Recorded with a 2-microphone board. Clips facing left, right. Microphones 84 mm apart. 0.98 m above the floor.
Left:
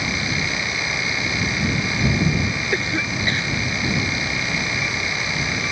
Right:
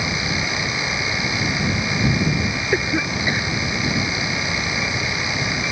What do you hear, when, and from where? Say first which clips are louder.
2.7 s a cough: right 4 dB; 10° right (ahead or behind)